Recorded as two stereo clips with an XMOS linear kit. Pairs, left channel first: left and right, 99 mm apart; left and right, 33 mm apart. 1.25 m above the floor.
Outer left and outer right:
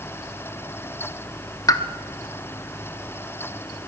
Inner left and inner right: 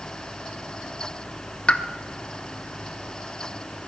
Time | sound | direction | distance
1.7 | a pop | 35° left (ahead or behind) | 0.8 m